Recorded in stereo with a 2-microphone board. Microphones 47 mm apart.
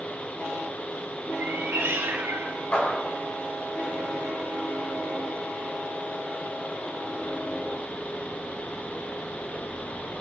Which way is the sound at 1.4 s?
65° right (ahead or behind).